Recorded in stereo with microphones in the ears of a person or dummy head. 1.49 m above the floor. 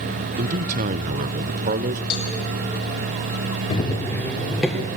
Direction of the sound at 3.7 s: 30° left (ahead or behind).